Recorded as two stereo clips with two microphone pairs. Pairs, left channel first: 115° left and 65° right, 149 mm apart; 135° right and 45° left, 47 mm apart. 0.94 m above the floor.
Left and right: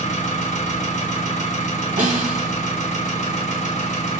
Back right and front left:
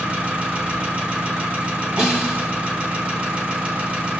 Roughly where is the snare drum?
Ahead right.